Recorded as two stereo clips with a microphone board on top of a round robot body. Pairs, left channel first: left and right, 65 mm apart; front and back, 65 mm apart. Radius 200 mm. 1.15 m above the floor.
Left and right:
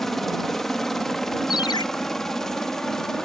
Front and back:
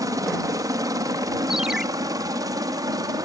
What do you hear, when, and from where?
0.0 s a helicopter: 175° left; by 3.2 s 170° left
1.5 s a ringtone: 95° left